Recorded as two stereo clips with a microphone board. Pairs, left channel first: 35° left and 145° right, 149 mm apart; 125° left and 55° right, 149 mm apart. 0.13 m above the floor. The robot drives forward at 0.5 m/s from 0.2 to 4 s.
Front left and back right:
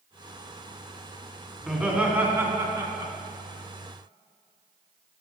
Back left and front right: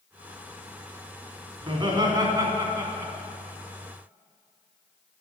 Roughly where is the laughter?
Ahead right.